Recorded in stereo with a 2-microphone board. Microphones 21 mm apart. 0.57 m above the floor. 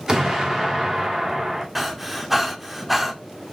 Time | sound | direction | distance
0.1 | an explosion | 30° right (ahead or behind) | 1.4 m
1.8 | breathing | 5° right (ahead or behind) | 0.7 m